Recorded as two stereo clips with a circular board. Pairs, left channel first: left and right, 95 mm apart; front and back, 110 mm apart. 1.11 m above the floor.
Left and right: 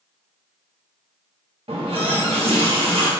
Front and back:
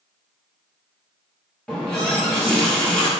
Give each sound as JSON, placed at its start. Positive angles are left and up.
{"t": 1.7, "sound": "a running tap", "azimuth_deg": -85, "distance_m": 1.2}